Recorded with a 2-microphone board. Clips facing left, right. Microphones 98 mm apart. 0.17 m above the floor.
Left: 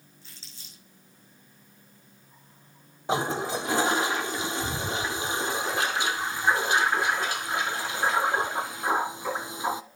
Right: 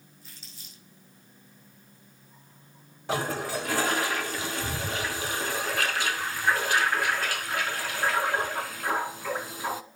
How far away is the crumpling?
About 6.5 m.